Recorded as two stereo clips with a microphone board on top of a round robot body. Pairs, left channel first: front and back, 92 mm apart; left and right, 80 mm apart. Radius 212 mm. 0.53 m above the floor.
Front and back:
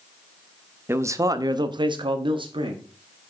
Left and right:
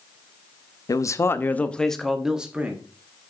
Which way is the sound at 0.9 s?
120° left.